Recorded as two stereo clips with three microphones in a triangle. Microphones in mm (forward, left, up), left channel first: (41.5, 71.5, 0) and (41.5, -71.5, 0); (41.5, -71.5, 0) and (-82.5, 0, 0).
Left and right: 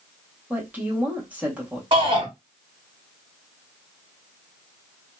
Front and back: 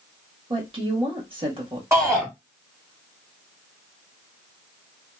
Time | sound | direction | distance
0.5 | a woman speaking | 165° right | 1.5 m
1.9 | a shout | 140° right | 1.6 m